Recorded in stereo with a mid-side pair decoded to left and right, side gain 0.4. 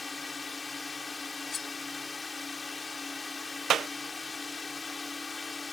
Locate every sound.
0.0 s a drone: 30° left
1.5 s cutlery clinking: 50° left
3.7 s a clap: 65° right